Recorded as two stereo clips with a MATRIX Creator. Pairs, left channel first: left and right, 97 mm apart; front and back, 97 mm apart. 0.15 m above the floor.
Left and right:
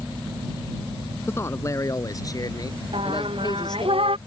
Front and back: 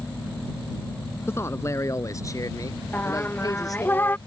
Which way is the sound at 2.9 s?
70° right.